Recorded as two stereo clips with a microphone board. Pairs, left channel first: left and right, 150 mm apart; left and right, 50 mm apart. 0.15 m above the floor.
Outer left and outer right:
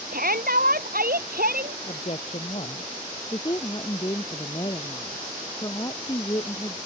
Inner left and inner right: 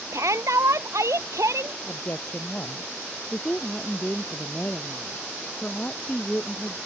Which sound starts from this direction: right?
A shout, at 0.1 s.